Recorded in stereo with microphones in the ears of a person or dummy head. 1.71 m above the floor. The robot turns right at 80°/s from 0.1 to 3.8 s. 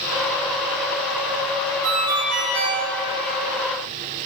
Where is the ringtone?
125° right, 2 m; by 2.8 s 45° right, 2 m.